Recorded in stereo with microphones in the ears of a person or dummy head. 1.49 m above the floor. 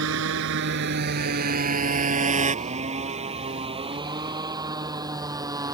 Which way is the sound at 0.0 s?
75° right (ahead or behind).